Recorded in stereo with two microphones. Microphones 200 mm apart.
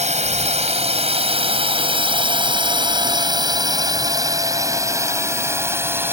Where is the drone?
35° right (ahead or behind); by 6.1 s 10° right (ahead or behind).